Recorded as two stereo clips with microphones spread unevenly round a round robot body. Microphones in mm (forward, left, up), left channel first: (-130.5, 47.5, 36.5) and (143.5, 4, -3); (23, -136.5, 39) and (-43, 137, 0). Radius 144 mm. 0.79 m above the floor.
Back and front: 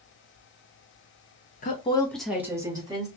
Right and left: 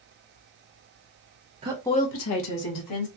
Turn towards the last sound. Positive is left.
turn(degrees=-80)